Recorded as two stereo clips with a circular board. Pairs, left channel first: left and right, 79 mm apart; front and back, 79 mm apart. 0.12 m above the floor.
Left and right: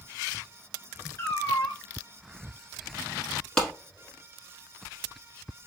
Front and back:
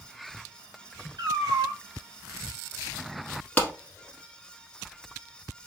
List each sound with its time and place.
1.2 s a cat meowing: 150° left, 1.1 m
3.6 s a clap: 25° left, 1.0 m